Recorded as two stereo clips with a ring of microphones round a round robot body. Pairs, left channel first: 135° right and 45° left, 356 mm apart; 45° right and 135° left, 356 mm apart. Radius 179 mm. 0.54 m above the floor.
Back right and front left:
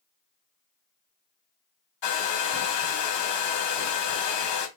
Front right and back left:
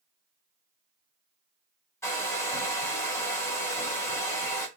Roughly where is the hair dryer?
Behind right.